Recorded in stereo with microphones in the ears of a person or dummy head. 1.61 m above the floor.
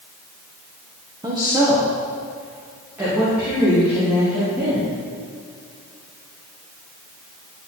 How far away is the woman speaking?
About 1.2 m.